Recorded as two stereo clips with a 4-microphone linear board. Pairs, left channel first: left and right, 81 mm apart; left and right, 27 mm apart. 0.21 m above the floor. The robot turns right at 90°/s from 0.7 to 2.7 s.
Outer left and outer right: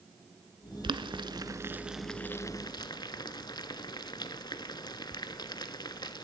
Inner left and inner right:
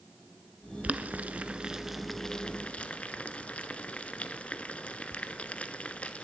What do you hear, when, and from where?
0.8 s boiling: 70° right (ahead or behind), 0.6 m; by 6.2 s 60° left (ahead or behind), 0.6 m